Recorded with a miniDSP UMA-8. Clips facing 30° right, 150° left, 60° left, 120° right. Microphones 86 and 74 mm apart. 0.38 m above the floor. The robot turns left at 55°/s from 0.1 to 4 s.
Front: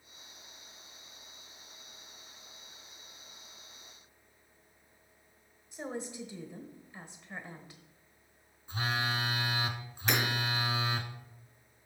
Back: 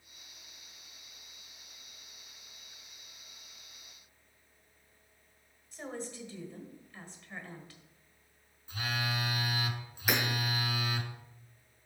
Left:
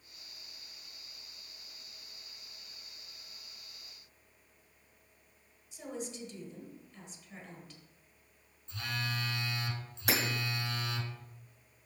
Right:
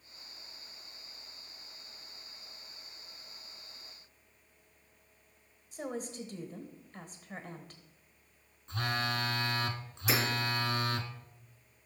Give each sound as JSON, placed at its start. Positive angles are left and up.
{"t": 5.7, "sound": "a woman speaking", "azimuth_deg": -95, "distance_m": 1.3}
{"t": 8.7, "sound": "a phone buzzing", "azimuth_deg": -90, "distance_m": 0.7}
{"t": 10.1, "sound": "hammering", "azimuth_deg": 70, "distance_m": 1.9}